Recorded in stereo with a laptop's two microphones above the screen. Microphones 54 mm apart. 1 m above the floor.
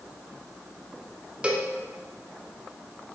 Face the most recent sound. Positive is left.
turn(degrees=-20)  # may be behind; listen again after turning